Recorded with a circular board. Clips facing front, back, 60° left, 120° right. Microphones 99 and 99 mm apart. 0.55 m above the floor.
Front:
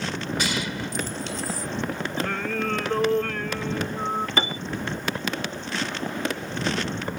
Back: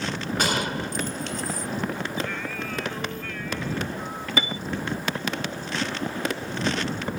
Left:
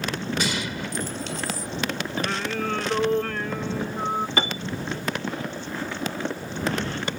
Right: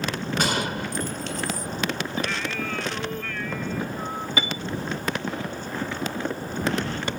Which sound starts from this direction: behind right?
A gunshot, at 0.4 s.